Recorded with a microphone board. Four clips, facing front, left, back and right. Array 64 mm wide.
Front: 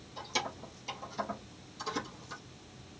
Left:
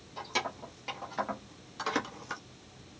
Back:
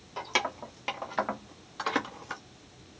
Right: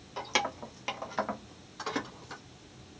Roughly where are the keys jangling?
Behind right.